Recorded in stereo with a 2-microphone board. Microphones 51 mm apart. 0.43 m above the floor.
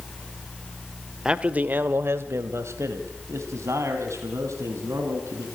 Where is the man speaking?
20° right (ahead or behind), 1.1 m; by 5.5 s 70° right (ahead or behind), 4.5 m.